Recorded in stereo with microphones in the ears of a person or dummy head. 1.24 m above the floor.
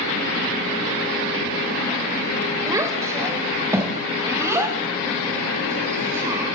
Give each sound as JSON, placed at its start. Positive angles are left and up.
{"t": 2.7, "sound": "a child speaking", "side_deg": -10, "distance_m": 3.0}